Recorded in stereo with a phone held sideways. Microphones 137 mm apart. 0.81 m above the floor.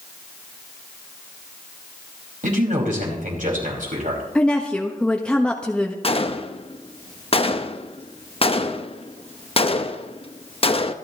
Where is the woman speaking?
5° left (ahead or behind), 1.1 m.